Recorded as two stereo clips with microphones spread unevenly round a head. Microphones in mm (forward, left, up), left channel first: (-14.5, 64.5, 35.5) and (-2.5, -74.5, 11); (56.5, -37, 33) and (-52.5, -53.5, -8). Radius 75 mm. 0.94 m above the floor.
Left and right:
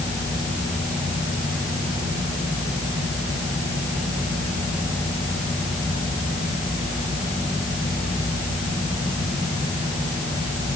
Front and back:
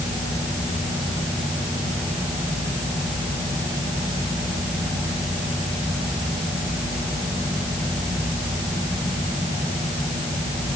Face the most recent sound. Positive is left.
No sound to turn to.